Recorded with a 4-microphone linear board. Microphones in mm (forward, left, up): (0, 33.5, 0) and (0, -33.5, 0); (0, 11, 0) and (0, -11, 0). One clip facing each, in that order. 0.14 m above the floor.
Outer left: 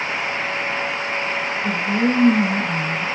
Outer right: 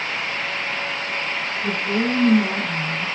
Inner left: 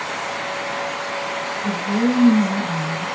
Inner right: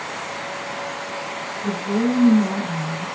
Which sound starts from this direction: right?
A woman speaking, at 1.6 s.